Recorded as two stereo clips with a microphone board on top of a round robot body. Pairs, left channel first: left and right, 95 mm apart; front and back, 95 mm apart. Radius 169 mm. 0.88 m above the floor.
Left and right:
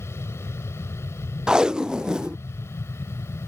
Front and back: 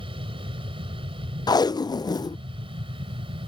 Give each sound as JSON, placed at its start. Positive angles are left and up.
{"t": 0.0, "sound": "an aircraft", "azimuth_deg": 155}
{"t": 1.5, "sound": "tape being pulled", "azimuth_deg": -10}